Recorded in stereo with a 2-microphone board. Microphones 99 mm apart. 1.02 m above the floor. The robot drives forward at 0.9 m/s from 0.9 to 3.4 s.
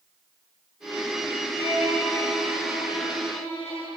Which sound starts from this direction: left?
A violin, at 1.6 s.